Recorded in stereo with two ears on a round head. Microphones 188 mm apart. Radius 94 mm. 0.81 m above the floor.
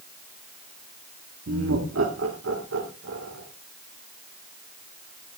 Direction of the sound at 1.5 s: 65° right (ahead or behind).